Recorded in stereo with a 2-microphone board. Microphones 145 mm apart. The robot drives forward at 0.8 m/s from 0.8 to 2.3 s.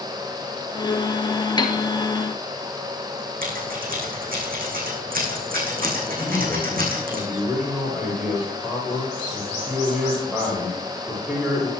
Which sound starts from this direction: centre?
A man speaking, at 6.2 s.